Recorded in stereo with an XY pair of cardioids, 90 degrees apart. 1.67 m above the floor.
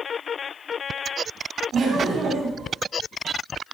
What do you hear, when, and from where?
1.7 s laughter: 65° right, 5.5 m